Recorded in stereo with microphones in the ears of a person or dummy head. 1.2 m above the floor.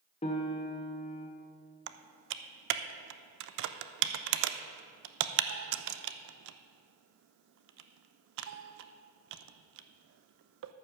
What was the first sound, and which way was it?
A piano, 30° left (ahead or behind).